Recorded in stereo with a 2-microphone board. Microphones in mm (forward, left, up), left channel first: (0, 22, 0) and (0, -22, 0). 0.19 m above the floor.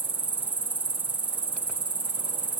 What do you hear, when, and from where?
0.0 s an insect: 40° right (ahead or behind), 1.5 m